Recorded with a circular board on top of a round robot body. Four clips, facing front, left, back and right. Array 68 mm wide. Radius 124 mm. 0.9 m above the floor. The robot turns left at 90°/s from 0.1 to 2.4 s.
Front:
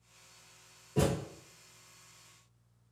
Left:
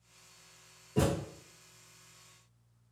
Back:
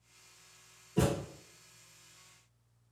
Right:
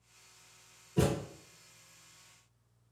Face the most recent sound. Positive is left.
turn(degrees=-85)